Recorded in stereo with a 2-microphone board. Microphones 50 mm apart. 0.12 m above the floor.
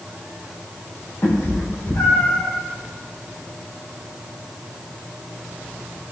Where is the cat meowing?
75° left (ahead or behind), 3 m.